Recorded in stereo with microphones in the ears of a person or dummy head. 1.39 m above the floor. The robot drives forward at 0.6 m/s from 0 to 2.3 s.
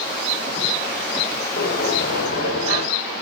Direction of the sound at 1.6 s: 55° left (ahead or behind).